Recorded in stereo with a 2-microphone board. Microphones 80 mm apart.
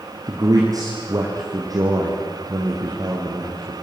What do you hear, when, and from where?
0.3 s a man speaking: 50° right (ahead or behind), 4 m